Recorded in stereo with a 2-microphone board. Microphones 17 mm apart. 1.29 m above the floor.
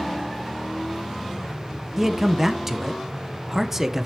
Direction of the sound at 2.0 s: 20° right (ahead or behind).